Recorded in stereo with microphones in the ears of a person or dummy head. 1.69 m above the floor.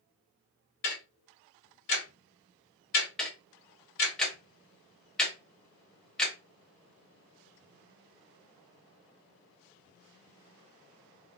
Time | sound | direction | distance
0.8 | ticking | 55° left (ahead or behind) | 1.4 m
3.2 | ticking | 10° left (ahead or behind) | 0.6 m